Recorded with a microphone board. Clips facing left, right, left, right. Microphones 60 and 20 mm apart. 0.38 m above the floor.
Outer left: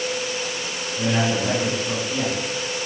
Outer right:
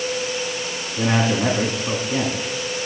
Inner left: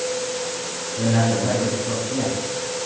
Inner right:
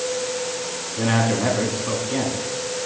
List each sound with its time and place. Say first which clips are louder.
1.0 s a man speaking: outer right 2 dB, even; 60° right (ahead or behind), 2.5 m